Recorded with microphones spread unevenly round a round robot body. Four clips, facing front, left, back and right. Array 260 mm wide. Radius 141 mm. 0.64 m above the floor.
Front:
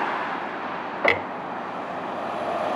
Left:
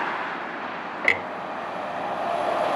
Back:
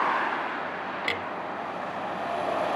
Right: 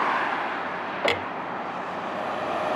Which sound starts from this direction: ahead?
A clunk, at 1.0 s.